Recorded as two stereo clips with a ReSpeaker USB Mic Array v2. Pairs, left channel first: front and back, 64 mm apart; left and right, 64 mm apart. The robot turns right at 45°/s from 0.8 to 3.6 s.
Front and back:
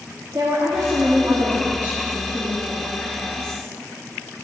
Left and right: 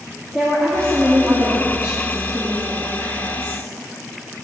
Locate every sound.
0.3 s a woman speaking: 170° left, 1.5 m; by 3.6 s 65° right, 1.5 m